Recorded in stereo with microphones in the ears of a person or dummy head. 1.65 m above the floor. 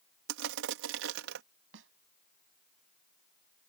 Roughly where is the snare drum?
Right.